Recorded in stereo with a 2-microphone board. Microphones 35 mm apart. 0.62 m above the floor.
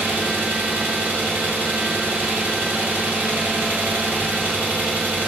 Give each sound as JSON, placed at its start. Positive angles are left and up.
{"t": 0.0, "sound": "an engine running", "side_deg": -75, "distance_m": 1.0}